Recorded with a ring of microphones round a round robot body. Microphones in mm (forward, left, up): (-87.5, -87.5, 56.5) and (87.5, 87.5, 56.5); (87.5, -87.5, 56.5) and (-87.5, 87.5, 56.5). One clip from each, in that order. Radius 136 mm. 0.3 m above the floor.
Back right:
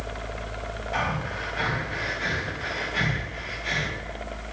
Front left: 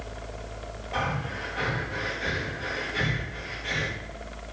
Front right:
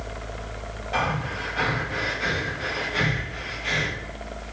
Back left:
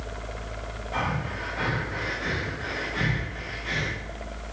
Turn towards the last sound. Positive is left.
turn(degrees=-80)